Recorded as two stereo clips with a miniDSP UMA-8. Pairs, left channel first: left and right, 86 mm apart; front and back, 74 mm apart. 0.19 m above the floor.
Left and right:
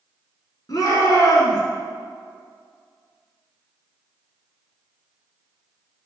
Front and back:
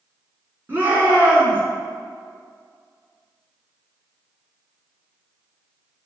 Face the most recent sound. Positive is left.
turn(degrees=125)